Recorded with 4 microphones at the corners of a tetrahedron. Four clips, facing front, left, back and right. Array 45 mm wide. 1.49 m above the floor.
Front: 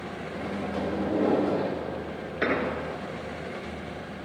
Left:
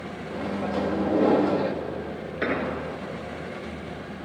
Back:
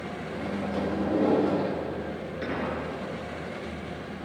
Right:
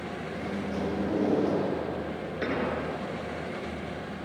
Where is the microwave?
85° left, 2.5 m.